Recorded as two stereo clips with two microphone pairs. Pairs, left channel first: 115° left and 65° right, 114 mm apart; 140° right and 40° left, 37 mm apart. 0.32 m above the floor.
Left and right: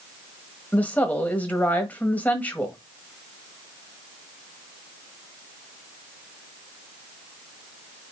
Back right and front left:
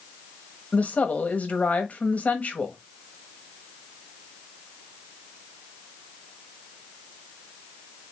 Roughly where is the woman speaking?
Behind.